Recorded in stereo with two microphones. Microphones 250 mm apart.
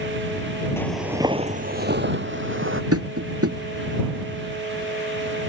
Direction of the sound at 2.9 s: 70° right (ahead or behind).